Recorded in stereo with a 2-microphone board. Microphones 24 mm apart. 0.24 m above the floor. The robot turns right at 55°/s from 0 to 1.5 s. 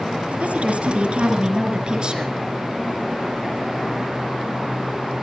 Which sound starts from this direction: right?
A woman speaking, at 0.4 s.